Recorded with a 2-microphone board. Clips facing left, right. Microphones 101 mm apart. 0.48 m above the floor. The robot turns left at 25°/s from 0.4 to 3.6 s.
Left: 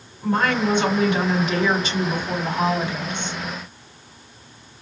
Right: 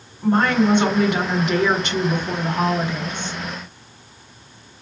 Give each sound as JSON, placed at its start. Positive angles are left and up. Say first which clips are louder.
{"t": 0.2, "sound": "a woman speaking", "louder": "right 4 dB", "azimuth_deg": -65, "distance_m": 2.5}